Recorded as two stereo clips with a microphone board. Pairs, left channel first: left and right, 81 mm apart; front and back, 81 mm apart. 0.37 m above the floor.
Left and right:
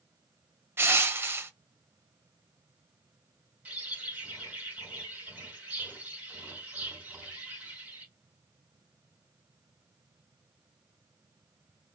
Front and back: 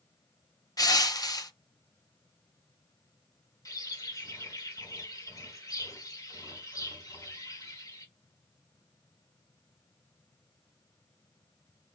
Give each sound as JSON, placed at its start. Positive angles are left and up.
{"t": 0.8, "sound": "crushing", "azimuth_deg": -35, "distance_m": 0.6}
{"t": 3.6, "sound": "a bird", "azimuth_deg": -20, "distance_m": 2.5}